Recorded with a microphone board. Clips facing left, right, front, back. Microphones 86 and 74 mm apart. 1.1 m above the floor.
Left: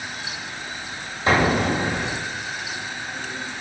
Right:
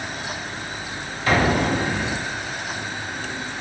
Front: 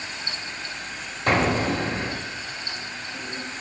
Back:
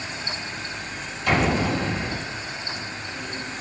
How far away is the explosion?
About 1.0 m.